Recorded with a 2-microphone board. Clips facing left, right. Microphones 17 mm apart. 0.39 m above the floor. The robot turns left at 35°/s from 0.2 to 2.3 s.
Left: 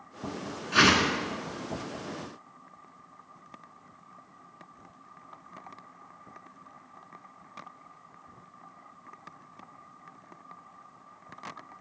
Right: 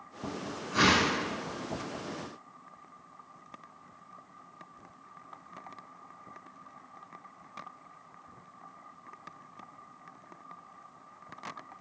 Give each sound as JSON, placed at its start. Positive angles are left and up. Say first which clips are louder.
{"t": 0.7, "sound": "a whoosh", "louder": "left 3 dB", "side_deg": 65, "distance_m": 1.1}